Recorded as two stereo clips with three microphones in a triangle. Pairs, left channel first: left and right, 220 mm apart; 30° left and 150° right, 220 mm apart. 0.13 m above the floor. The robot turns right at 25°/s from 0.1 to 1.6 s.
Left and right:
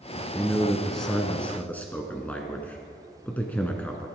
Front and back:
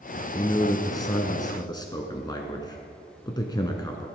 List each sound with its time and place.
0.3 s a man speaking: 10° right, 1.1 m; by 4.1 s 25° left, 1.1 m